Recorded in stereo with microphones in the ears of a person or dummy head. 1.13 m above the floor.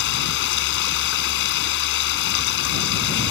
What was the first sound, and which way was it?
Running water, 65° left (ahead or behind).